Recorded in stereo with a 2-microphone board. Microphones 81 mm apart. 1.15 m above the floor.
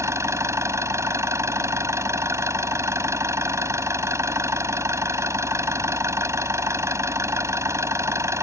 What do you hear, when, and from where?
0.0 s an engine running: 35° right (ahead or behind)